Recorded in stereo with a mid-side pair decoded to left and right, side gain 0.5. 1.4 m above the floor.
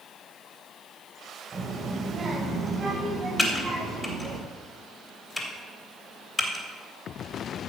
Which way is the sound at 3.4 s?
10° left.